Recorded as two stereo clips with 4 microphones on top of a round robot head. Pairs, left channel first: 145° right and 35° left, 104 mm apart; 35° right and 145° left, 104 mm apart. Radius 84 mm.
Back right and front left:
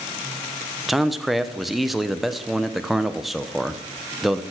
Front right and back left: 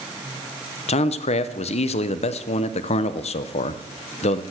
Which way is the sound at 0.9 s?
55° right.